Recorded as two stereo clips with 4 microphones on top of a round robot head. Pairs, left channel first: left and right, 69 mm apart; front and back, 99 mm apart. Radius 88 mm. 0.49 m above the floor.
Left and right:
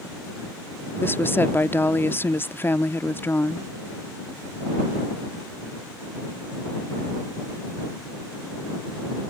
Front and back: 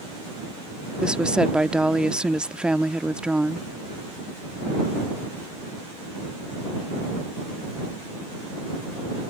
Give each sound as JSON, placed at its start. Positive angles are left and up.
{"t": 1.0, "sound": "a woman speaking", "azimuth_deg": 105}